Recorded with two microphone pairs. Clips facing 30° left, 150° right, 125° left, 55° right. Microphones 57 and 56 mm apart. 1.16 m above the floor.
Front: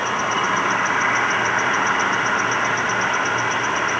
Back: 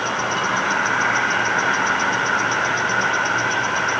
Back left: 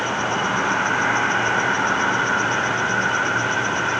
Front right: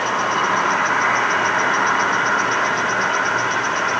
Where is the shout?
I don't hear a shout.